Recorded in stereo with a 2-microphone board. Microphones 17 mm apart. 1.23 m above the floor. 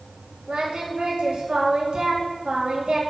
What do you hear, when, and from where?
0.5 s singing: 85° right, 2.0 m